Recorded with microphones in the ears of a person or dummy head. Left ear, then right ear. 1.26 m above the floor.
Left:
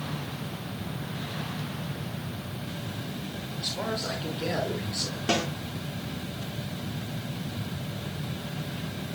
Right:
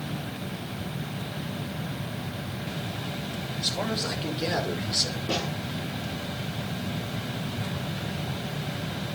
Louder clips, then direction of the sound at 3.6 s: Right 2 dB; 15° right (ahead or behind).